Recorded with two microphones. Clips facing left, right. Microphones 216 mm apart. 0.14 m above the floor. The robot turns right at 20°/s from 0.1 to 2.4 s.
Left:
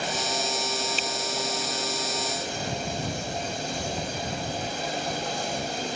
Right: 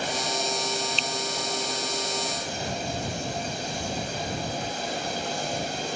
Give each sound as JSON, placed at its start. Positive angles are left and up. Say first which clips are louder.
{"t": 1.0, "sound": "a finger snap", "louder": "left 1 dB", "side_deg": 10}